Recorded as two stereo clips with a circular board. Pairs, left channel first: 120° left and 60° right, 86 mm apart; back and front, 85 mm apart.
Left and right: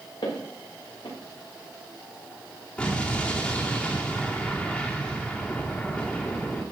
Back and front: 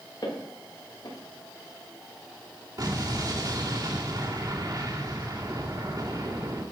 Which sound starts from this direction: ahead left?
An explosion, at 2.8 s.